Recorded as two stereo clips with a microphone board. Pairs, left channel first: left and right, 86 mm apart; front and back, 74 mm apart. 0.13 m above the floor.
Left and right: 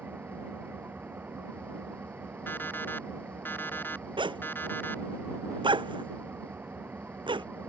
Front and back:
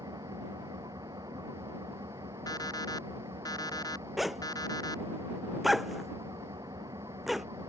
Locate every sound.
0.0 s an engine running: 160° right
2.5 s an alarm clock: 25° left
4.2 s a zipper: 90° right